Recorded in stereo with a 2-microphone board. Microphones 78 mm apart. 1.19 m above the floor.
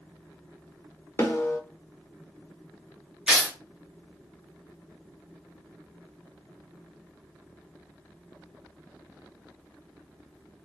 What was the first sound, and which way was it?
A snare drum, 30° left (ahead or behind).